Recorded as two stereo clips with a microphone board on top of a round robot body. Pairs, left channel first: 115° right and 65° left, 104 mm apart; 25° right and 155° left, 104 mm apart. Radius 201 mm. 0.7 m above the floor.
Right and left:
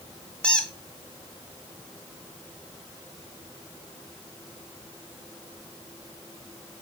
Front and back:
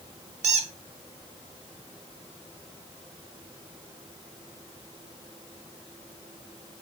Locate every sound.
0.4 s a squeak: 165° left, 1.1 m